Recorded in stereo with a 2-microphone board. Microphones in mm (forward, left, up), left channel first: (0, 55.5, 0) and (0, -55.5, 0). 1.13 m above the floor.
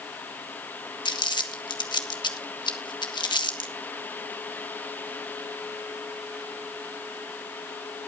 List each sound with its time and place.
1.1 s crumpling: 40° left (ahead or behind), 1.8 m